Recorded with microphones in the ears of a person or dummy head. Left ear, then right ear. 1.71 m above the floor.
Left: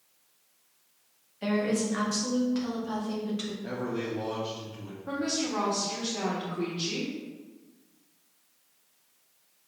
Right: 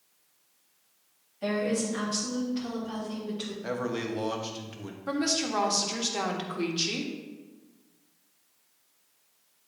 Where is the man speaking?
65° right (ahead or behind), 1.2 m.